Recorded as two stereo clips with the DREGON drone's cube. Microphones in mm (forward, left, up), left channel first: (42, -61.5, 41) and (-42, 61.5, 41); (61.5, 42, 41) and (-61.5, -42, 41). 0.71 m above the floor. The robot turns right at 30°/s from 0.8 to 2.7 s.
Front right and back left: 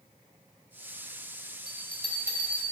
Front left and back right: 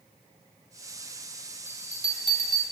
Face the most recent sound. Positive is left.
turn(degrees=-80)